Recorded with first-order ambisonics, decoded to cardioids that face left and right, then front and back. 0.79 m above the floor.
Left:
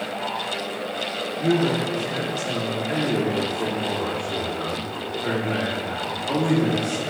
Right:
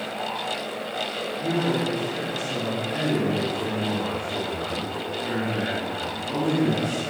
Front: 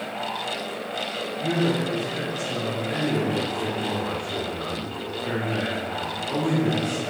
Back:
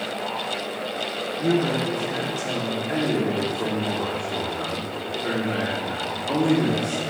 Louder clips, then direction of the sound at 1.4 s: Left 4 dB, back 2 dB; 130° left.